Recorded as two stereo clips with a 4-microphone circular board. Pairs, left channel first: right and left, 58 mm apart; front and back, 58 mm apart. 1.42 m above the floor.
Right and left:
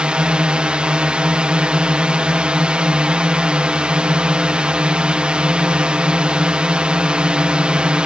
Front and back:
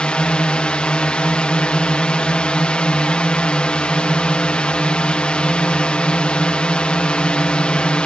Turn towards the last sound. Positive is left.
turn(degrees=45)